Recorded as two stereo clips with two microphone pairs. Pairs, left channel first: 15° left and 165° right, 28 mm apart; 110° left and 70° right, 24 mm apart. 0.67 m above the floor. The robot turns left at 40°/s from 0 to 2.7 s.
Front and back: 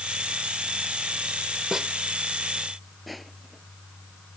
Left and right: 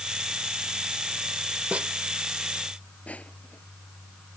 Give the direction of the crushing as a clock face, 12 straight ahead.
8 o'clock.